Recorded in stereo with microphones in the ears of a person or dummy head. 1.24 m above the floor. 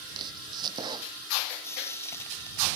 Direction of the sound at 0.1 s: 30° right (ahead or behind).